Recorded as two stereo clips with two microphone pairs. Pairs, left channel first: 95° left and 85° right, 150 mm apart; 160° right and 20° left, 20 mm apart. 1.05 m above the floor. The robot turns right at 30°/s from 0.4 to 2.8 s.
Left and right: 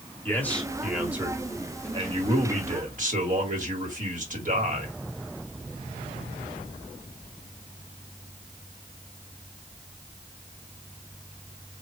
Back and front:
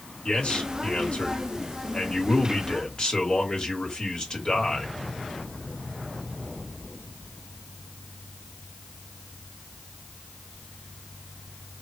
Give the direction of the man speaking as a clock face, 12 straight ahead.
6 o'clock.